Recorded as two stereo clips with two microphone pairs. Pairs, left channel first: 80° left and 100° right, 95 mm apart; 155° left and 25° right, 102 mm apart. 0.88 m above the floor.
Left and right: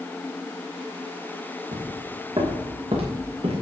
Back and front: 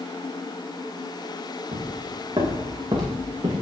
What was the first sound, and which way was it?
Footsteps, 75° right.